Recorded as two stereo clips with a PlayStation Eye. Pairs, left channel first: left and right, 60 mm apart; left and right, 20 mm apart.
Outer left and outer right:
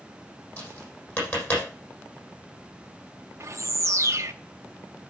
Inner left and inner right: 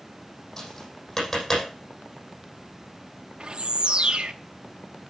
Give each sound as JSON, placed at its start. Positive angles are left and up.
{"t": 0.6, "sound": "tapping", "side_deg": 30, "distance_m": 6.0}
{"t": 3.4, "sound": "a bird", "side_deg": -50, "distance_m": 1.0}